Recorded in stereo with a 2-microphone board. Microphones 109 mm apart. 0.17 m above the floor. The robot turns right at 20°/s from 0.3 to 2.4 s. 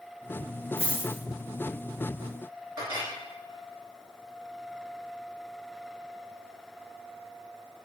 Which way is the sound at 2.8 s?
35° right (ahead or behind).